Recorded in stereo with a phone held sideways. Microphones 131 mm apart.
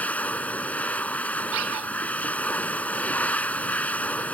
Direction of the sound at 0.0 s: 10° left (ahead or behind).